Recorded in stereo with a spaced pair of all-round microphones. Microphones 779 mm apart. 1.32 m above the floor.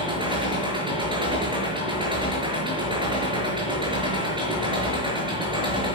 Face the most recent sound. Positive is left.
turn(degrees=-5)  # may be behind; listen again after turning